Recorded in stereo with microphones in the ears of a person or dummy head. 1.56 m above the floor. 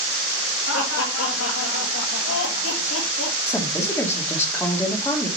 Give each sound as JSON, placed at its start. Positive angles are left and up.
{"t": 0.7, "sound": "laughter", "side_deg": 75, "distance_m": 2.5}
{"t": 3.5, "sound": "a woman speaking", "side_deg": 10, "distance_m": 2.0}